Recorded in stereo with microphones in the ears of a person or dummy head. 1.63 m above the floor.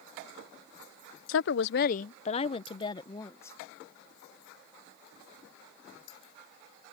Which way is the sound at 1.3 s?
75° left (ahead or behind).